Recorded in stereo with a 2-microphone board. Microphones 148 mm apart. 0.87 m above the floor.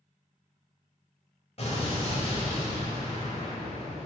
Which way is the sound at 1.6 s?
40° left (ahead or behind).